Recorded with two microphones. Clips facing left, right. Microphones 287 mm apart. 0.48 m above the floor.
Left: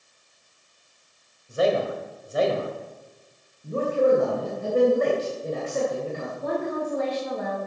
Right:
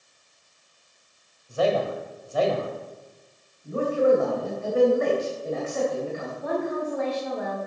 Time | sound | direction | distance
1.5 | a man speaking | 20° left (ahead or behind) | 2 m
3.6 | a man speaking | 45° left (ahead or behind) | 2.5 m
6.4 | a woman speaking | 40° left (ahead or behind) | 3.5 m